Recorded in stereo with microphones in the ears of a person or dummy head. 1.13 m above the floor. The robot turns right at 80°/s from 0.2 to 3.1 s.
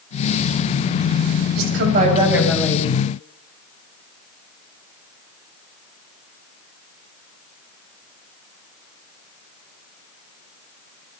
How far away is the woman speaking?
About 7.5 m.